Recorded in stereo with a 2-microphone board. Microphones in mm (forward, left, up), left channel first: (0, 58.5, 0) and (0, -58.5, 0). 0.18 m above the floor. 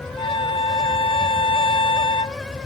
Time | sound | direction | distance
0.2 | a violin | 50° left (ahead or behind) | ?